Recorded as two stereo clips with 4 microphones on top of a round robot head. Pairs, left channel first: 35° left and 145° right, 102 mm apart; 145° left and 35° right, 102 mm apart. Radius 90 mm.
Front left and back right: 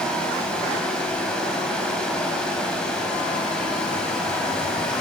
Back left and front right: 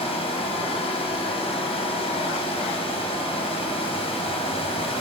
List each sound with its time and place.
0.0 s running water: 120° left, 3 m